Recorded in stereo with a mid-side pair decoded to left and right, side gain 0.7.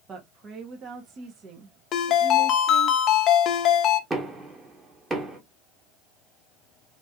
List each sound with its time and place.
0.1 s a woman speaking: 40° right, 1.4 m
1.9 s a ringtone: 45° left, 0.7 m
4.1 s knocking: 20° right, 1.9 m